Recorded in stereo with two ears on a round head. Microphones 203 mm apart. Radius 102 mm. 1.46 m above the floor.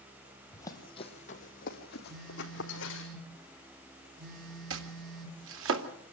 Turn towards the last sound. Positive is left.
turn(degrees=-60)  # may be behind; listen again after turning